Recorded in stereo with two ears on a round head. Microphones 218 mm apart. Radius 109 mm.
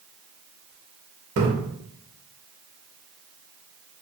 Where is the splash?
50° right (ahead or behind), 1.4 m.